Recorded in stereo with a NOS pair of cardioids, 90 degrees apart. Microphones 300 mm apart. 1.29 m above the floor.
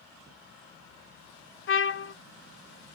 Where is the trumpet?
45° left, 0.6 m.